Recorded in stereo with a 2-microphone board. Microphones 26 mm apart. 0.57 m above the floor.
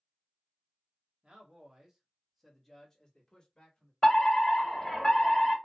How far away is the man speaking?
About 1.2 m.